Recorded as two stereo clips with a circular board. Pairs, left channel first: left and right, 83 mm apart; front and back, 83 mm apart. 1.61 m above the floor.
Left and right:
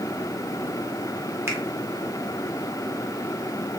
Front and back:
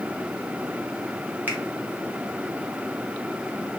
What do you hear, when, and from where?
1.5 s a finger snap: 125° right, 0.9 m